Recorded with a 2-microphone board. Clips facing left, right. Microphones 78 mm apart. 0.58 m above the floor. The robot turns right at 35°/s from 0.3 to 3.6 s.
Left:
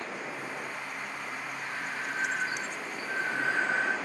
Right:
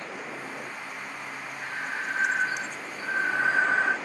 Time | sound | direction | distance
1.6 | breathing | 145° right | 1.6 m